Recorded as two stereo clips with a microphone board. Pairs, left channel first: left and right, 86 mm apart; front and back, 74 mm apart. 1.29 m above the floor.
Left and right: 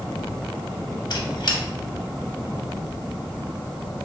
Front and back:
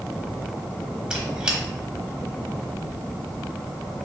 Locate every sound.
1.1 s a squeak: 105° left, 0.8 m